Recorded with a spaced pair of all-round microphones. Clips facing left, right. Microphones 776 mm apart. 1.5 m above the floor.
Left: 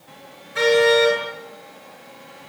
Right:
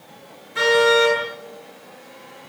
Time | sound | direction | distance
0.6 | a car horn | 15° left (ahead or behind) | 10 m